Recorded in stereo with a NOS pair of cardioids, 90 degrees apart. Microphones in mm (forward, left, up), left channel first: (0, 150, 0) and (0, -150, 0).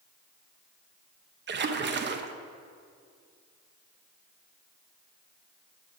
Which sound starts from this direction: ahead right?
A splash, at 1.5 s.